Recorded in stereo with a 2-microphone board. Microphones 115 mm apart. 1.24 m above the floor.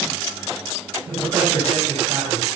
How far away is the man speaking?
About 10 m.